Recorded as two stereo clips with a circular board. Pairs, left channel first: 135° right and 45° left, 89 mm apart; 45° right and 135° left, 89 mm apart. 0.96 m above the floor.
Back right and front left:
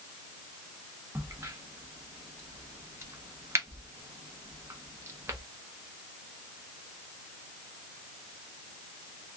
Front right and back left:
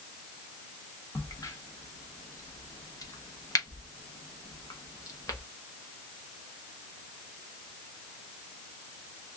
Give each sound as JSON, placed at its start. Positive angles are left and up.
{"t": 1.1, "sound": "a crack", "azimuth_deg": -5, "distance_m": 0.9}